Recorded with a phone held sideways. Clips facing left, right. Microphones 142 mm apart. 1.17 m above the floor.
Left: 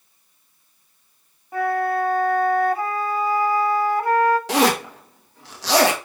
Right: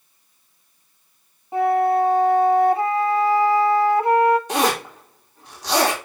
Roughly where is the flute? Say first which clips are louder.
Right 4 dB; right.